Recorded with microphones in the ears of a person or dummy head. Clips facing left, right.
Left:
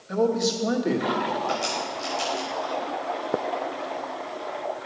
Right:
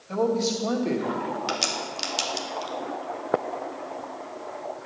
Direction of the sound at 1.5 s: 80° right.